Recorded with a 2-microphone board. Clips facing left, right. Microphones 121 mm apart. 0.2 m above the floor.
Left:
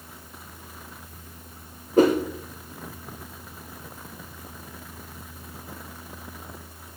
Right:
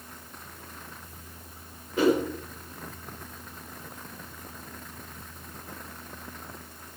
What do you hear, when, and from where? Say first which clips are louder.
2.0 s a whoosh: left 4 dB; 45° left (ahead or behind), 4.5 m